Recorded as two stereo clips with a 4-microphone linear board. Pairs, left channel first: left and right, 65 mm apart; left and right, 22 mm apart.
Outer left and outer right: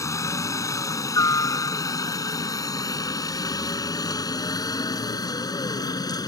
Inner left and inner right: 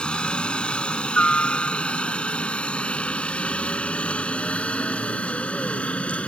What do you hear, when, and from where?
0.0 s a helicopter: 50° left (ahead or behind); by 6.3 s 75° left (ahead or behind)